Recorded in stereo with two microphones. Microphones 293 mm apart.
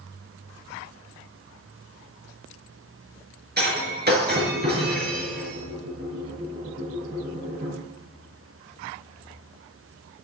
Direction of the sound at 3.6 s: 35° right (ahead or behind).